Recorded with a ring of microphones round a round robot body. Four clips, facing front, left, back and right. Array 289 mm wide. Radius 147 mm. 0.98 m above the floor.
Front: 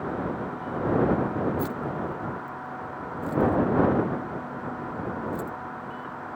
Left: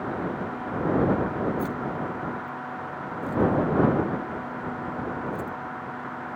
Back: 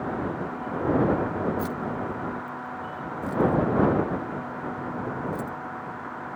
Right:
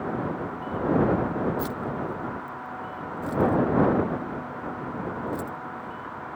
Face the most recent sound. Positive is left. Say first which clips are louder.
# left 1 dB, even
turn(degrees=-90)